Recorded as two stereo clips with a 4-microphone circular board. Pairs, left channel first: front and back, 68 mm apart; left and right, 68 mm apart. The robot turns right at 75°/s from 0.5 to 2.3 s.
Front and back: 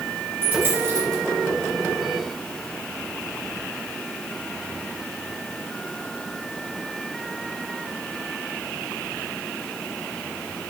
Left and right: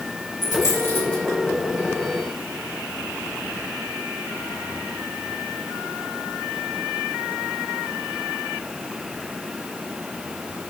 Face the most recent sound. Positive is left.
turn(degrees=-110)